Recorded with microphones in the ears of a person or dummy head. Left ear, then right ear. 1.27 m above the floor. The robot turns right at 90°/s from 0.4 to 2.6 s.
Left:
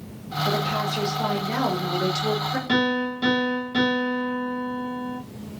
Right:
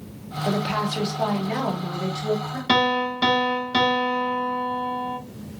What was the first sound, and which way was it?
A woman speaking, 100° right.